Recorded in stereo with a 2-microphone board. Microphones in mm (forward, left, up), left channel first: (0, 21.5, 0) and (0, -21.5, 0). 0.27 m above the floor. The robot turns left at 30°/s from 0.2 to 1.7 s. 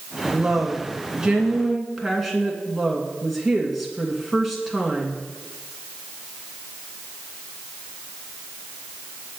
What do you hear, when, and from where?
0.3 s a woman speaking: 140° right, 2.5 m; by 5.2 s straight behind, 2.5 m